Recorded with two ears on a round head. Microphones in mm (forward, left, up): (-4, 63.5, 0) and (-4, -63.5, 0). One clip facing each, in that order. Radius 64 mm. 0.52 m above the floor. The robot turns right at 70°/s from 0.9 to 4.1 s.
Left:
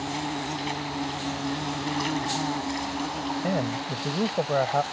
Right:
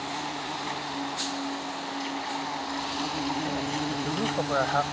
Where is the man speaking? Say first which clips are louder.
Left 2 dB; 110° left; by 4.8 s 160° left.